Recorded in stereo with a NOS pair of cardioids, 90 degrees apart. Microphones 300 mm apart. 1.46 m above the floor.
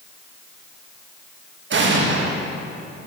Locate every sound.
1.7 s an explosion: 40° right, 1.5 m